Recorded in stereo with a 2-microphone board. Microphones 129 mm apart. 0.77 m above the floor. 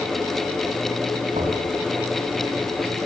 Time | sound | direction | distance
1.3 | knocking | 80° right | 4.5 m